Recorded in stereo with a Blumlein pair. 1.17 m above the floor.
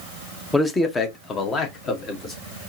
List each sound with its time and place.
0.5 s a man speaking: 5° left, 0.8 m; by 2.3 s 25° left, 1.9 m